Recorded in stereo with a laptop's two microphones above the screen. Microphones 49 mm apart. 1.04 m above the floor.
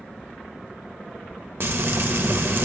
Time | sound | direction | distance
1.6 | frying | 50° right (ahead or behind) | 0.6 m